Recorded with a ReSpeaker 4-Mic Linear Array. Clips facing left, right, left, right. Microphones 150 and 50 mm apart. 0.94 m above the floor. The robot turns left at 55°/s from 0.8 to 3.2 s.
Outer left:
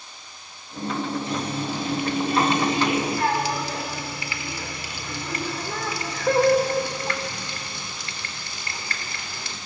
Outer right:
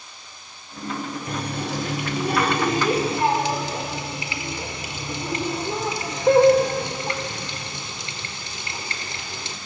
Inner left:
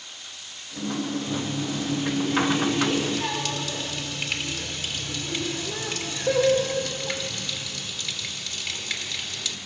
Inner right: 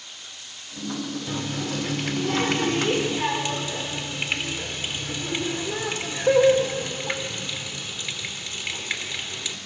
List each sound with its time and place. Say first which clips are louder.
1.3 s a running tap: outer left 1 dB, inner left 1 dB; 50° right, 2 m; by 9.6 s 155° right, 2 m